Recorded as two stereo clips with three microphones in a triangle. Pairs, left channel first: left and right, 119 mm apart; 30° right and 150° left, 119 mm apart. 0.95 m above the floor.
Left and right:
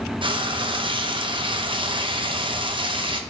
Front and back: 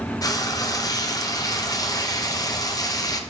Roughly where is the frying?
Right.